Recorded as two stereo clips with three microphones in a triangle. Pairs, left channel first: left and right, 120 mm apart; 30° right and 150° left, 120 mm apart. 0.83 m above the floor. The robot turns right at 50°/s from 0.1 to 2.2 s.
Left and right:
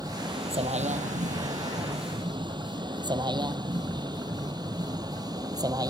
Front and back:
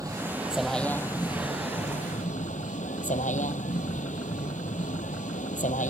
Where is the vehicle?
150° right; by 5.9 s 30° right.